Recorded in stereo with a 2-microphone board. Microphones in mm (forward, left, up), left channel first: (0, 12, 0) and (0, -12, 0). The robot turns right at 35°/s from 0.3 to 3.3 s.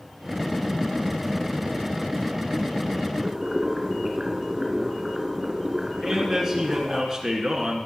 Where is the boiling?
35° right (ahead or behind), 3 m; by 7.0 s 30° right (ahead or behind), 3 m.